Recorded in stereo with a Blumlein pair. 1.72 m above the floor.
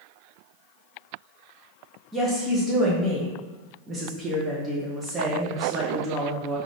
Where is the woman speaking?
10° right, 1.0 m.